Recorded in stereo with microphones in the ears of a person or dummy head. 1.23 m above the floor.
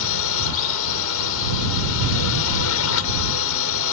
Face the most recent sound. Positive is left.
turn(degrees=65)  # may be behind; listen again after turning